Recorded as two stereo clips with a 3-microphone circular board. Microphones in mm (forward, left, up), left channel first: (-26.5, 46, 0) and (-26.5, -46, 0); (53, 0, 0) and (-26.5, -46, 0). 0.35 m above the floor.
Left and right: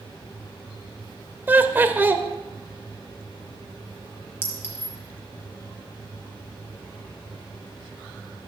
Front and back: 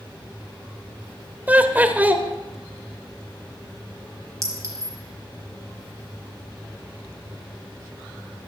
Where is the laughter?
115° right, 1.0 m.